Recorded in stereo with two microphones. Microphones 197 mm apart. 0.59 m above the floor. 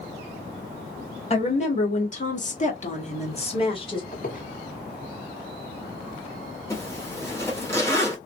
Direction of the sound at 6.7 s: 15° left (ahead or behind).